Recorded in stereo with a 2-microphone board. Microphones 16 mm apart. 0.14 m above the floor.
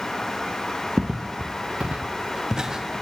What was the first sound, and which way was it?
Footsteps, 35° right (ahead or behind).